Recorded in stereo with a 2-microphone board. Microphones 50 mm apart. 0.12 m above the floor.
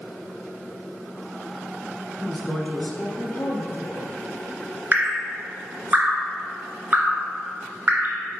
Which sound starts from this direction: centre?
A woman speaking, at 2.2 s.